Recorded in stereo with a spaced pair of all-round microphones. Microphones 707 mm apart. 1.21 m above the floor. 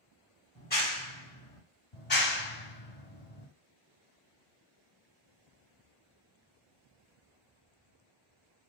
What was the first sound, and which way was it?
A clap, 15° left (ahead or behind).